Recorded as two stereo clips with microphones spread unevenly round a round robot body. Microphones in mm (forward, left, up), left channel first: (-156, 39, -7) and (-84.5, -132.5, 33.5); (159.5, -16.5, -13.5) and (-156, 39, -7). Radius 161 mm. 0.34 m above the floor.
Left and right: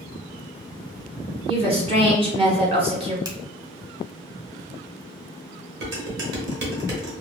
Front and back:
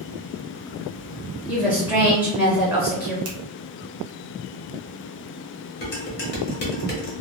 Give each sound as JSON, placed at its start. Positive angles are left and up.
{"t": 1.5, "sound": "a woman speaking", "azimuth_deg": -110, "distance_m": 1.1}
{"t": 3.2, "sound": "a finger snap", "azimuth_deg": -145, "distance_m": 0.9}
{"t": 5.8, "sound": "dishes clattering", "azimuth_deg": -60, "distance_m": 0.9}